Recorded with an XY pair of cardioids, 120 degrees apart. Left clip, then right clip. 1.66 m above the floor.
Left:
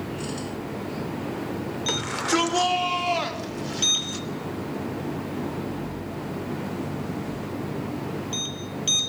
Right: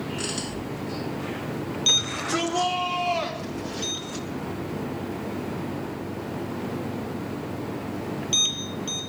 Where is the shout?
50° left, 6 m; by 4.2 s 20° left, 5.5 m.